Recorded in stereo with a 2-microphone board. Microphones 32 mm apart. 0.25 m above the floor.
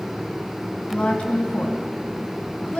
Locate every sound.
0.9 s a woman speaking: 45° left (ahead or behind), 2.5 m